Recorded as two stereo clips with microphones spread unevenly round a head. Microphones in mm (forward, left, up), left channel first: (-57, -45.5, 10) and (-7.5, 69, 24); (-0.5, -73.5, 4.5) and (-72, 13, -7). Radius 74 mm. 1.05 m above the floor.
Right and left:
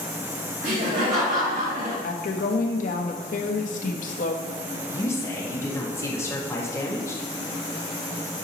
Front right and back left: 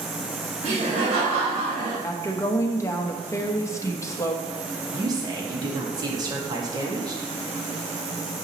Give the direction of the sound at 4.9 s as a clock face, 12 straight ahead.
6 o'clock.